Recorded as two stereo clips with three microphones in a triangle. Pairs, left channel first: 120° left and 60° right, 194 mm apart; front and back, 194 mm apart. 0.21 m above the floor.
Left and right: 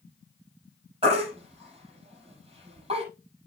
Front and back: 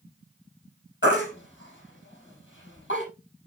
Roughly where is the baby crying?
Ahead.